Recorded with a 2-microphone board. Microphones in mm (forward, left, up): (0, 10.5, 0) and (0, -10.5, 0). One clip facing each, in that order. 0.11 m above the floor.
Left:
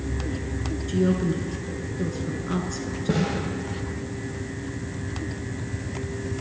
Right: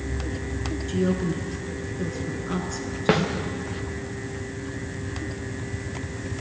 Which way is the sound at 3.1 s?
65° right (ahead or behind).